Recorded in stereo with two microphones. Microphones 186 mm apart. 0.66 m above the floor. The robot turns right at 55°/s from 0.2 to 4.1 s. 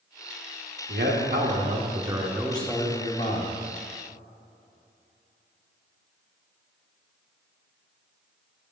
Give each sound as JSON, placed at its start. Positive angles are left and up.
{"t": 0.9, "sound": "a man speaking", "azimuth_deg": -85, "distance_m": 1.2}